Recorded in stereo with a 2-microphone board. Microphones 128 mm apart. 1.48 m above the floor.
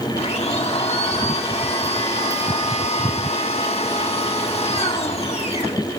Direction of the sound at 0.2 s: 55° left (ahead or behind).